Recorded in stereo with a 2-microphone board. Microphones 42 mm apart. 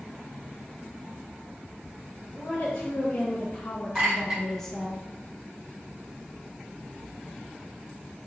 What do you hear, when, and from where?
2.3 s a woman speaking: 40° left (ahead or behind), 1.3 m; by 5.0 s 5° left (ahead or behind), 0.9 m
4.0 s a clink: 15° right (ahead or behind), 2.5 m